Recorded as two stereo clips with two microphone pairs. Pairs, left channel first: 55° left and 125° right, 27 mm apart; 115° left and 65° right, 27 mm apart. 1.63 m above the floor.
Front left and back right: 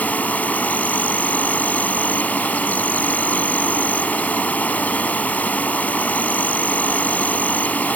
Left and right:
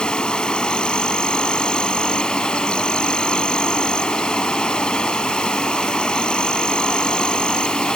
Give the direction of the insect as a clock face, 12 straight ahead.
10 o'clock.